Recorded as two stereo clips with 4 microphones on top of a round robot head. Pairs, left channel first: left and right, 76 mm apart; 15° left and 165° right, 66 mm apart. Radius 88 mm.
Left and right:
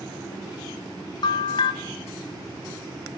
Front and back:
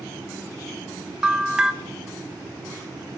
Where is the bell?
115° left, 1.2 m.